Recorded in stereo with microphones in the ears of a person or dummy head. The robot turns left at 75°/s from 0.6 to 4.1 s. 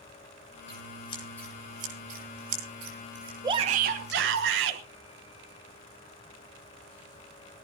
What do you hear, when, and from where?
0.7 s scissors: 60° left (ahead or behind), 9.5 m; by 4.4 s 15° left (ahead or behind), 9.5 m
3.4 s a shout: 20° right, 1.2 m; by 4.8 s 70° right, 1.2 m